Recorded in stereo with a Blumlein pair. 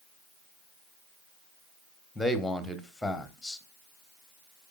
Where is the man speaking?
5° left, 1.1 m.